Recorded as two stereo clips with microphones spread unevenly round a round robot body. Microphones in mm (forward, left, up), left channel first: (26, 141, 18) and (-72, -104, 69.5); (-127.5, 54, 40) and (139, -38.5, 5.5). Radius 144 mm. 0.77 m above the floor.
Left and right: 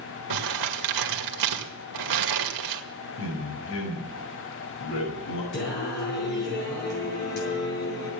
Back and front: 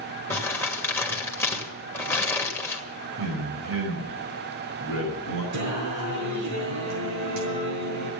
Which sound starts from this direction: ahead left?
A man speaking, at 3.2 s.